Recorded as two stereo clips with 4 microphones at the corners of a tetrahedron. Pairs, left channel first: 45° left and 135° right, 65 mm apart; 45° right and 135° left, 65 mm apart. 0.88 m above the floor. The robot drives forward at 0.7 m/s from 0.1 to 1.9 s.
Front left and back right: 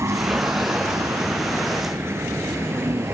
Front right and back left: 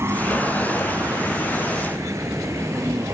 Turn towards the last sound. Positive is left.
turn(degrees=175)